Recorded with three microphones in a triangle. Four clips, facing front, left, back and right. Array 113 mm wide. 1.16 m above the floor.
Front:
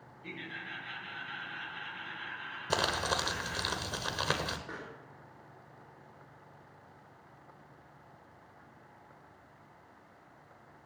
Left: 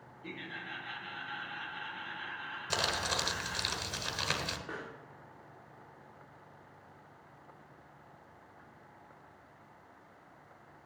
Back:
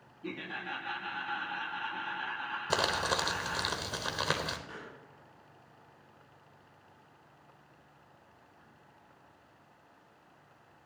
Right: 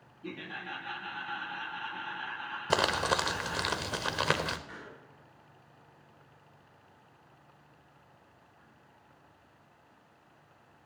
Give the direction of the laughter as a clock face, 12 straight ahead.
5 o'clock.